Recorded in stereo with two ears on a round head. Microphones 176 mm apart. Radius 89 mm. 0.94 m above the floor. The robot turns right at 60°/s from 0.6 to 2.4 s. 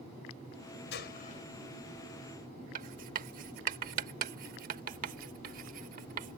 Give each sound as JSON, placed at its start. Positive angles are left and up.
{"t": 0.9, "sound": "a gunshot", "azimuth_deg": 115}
{"t": 2.8, "sound": "writing", "side_deg": -45}